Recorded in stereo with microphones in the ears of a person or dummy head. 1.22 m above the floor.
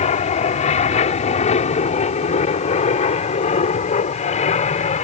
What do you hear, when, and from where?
0.0 s an aircraft: 35° left (ahead or behind)